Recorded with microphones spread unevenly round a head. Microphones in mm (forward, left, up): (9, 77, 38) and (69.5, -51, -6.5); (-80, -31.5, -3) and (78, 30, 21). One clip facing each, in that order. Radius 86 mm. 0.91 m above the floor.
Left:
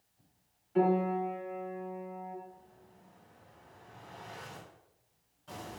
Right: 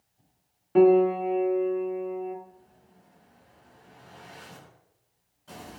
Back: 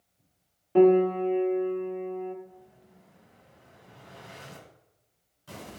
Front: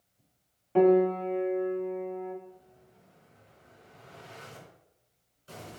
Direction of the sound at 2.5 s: 155° right.